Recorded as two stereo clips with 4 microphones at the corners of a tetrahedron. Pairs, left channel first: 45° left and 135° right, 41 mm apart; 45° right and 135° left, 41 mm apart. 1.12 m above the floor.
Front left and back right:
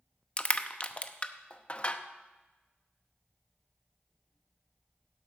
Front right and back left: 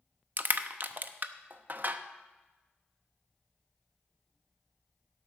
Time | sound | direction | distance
0.4 | crushing | 100° left | 0.7 m